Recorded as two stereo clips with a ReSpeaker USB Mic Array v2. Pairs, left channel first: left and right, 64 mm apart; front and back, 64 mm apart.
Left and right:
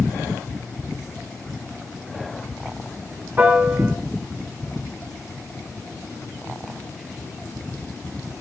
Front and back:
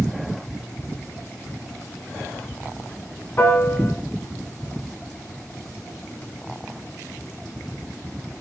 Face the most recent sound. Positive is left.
turn(degrees=-35)